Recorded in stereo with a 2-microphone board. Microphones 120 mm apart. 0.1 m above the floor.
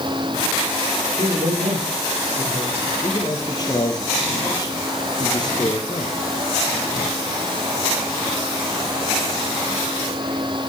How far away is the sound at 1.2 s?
About 7 m.